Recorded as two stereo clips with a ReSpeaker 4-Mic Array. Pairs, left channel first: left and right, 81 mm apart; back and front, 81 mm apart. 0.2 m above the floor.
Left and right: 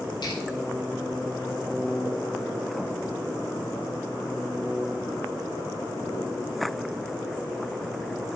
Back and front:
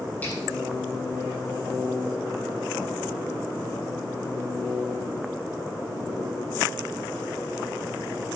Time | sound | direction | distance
0.2 | a finger snap | 110° left | 6 m